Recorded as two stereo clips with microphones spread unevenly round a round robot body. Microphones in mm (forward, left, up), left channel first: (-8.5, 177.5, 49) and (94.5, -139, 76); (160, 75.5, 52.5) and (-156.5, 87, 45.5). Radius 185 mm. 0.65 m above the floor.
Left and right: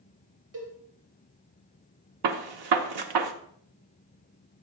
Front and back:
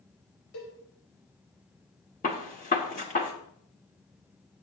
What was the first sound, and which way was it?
A cowbell, 40° right.